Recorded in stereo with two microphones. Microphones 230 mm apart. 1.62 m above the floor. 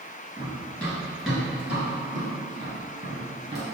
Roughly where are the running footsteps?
Centre.